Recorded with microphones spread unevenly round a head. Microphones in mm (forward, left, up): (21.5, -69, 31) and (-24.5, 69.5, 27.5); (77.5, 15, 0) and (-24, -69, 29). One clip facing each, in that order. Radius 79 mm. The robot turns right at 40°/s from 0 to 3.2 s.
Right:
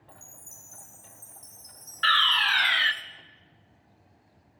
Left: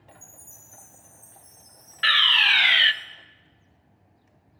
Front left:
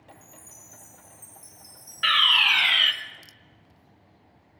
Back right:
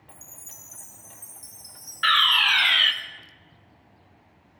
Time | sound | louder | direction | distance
0.1 | a chime | left 2 dB, front left 3 dB | 145° right | 2.5 m
2.0 | a fire alarm | right 1 dB, back right 2 dB | 65° left | 0.7 m